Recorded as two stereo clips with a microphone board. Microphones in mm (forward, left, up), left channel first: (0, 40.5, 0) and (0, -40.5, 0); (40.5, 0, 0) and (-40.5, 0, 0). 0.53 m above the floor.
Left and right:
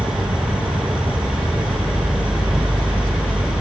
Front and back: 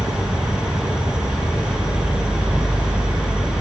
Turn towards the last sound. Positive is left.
turn(degrees=-100)